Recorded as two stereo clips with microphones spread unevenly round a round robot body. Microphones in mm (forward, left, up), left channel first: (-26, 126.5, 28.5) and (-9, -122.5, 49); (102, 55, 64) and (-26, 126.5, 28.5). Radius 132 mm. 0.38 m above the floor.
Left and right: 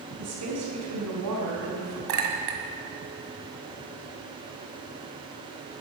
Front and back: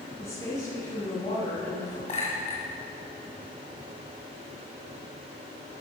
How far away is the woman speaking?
About 4.5 m.